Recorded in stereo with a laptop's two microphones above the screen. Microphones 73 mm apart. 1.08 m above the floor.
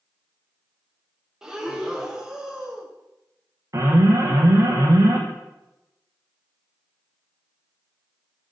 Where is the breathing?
5° right (ahead or behind), 0.6 m.